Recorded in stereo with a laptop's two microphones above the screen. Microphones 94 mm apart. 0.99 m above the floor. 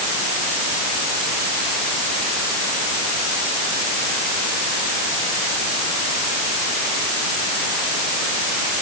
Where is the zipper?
I don't hear a zipper.